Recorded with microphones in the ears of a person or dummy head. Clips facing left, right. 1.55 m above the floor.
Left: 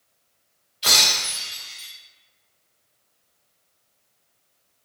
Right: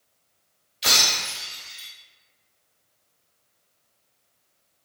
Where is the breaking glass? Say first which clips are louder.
Left 1 dB; 30° right (ahead or behind), 1.1 m.